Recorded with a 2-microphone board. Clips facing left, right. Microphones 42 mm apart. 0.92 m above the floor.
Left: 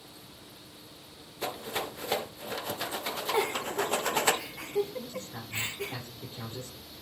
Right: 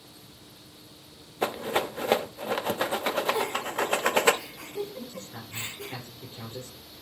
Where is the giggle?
55° left (ahead or behind), 1.9 m.